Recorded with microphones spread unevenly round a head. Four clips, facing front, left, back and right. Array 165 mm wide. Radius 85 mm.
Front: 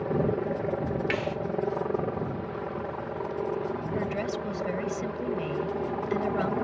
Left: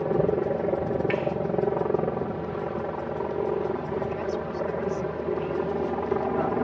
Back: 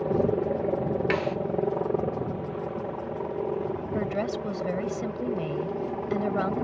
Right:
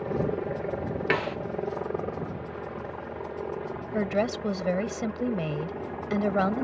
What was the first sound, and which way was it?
A helicopter, 125° left.